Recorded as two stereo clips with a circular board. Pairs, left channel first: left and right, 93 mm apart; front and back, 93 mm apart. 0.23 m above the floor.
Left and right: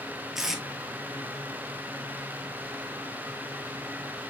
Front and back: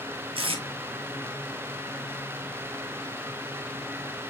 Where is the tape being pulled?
175° right, 0.9 m.